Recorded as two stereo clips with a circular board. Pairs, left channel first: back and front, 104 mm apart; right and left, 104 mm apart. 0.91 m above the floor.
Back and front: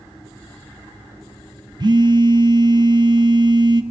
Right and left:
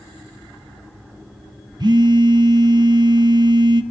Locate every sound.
1.8 s a phone buzzing: 45° left, 1.0 m